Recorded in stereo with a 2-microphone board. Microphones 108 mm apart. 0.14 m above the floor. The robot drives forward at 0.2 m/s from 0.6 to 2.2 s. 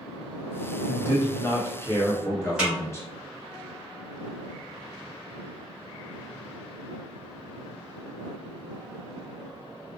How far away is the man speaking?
About 1.2 m.